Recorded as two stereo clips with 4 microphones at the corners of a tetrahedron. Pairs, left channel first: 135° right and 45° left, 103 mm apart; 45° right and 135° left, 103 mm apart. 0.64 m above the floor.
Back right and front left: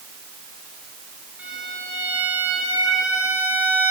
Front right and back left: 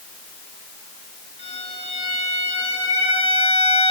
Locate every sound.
1.4 s a violin: 30° right, 7 m